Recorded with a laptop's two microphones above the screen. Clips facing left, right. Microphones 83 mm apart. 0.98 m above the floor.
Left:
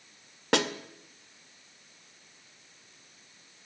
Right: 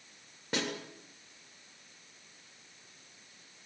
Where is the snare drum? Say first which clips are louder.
Left 8 dB; 85° left, 1.9 m.